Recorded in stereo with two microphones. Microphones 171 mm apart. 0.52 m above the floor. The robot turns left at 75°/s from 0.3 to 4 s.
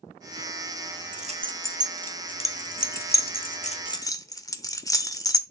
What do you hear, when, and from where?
1.1 s keys jangling: 50° right (ahead or behind), 0.8 m; by 5.4 s 20° left (ahead or behind), 0.8 m